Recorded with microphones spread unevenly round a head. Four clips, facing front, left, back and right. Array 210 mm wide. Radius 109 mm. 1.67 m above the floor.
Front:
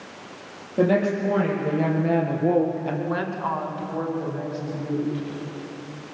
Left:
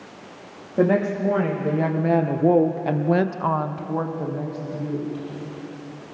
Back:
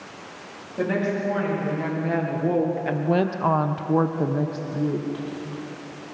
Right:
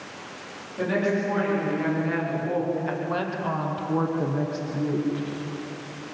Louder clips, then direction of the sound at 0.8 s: Left 5 dB, front 4 dB; 60° left.